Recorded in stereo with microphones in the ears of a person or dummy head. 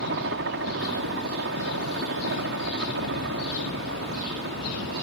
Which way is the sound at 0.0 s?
50° right (ahead or behind).